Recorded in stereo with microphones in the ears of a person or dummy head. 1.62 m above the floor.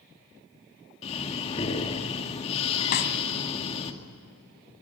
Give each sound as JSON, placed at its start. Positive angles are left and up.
{"t": 1.0, "sound": "breathing", "side_deg": 35, "distance_m": 2.0}
{"t": 2.9, "sound": "a snare drum", "side_deg": 45, "distance_m": 2.0}